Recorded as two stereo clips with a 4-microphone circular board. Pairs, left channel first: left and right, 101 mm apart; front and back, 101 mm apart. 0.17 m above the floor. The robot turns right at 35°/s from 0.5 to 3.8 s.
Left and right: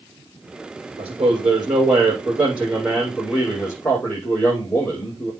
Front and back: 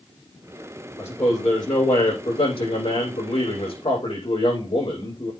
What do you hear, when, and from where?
1.0 s a man speaking: 70° right, 6 m; by 5.3 s 30° left, 6 m